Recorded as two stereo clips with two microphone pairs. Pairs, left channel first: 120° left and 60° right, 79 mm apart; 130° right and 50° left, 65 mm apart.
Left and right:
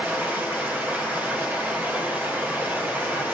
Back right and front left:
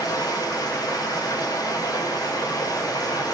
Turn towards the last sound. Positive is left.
turn(degrees=-125)